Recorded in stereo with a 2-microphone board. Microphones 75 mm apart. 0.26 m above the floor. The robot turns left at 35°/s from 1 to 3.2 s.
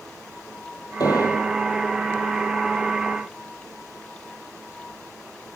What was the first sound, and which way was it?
An explosion, 60° left (ahead or behind).